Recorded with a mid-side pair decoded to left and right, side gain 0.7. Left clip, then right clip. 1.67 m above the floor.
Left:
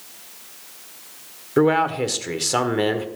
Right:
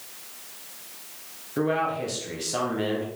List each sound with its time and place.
1.6 s a man speaking: 40° left, 1.5 m